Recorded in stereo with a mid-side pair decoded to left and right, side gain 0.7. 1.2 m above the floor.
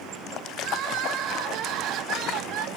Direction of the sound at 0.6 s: 55° right.